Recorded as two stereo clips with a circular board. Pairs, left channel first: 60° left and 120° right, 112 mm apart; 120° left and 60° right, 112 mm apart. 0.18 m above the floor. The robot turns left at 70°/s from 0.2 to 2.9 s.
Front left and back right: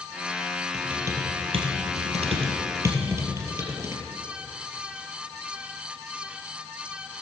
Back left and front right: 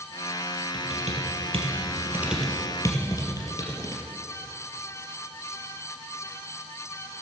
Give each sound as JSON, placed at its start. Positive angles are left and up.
{"t": 0.7, "sound": "typing on a keyboard", "azimuth_deg": -35, "distance_m": 2.5}